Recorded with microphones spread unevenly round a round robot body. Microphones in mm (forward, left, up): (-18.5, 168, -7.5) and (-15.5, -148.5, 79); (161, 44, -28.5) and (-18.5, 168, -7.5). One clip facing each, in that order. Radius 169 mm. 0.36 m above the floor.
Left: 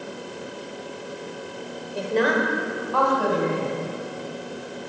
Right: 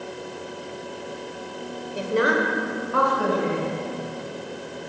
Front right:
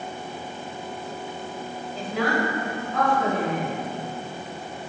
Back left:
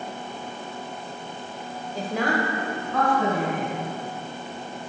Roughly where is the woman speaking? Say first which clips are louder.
Even, even; behind.